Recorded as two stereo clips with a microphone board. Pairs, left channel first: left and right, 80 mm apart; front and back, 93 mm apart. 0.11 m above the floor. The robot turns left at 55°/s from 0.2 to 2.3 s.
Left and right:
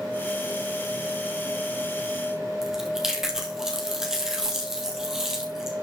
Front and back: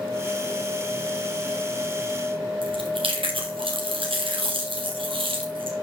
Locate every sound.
2.6 s chewing: 175° right, 2 m